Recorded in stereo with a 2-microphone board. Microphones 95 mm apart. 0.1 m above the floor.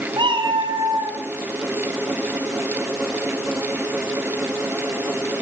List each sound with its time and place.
0.2 s a cat meowing: 55° right (ahead or behind), 2 m